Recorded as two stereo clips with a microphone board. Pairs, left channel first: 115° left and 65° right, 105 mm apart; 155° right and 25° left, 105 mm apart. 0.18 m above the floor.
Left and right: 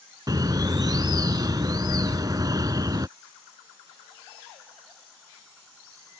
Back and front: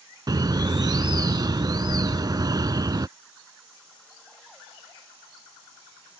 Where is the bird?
20° right.